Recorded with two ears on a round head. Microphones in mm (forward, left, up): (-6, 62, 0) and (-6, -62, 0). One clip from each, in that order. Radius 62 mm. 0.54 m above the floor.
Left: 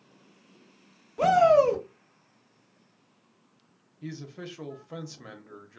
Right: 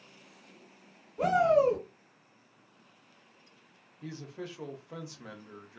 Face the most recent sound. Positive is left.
turn(degrees=-5)  # may be behind; listen again after turning